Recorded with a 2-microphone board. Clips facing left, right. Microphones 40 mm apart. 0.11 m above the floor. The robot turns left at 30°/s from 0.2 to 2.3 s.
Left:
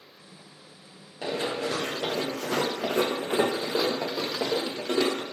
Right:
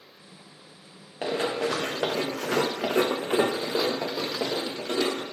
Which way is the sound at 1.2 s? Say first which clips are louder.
Right 2 dB; 50° right (ahead or behind).